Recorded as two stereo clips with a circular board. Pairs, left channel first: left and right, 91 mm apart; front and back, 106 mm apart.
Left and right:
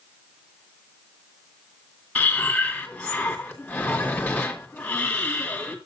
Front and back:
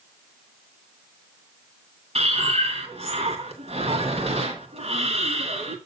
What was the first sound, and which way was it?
Breathing, 165° left.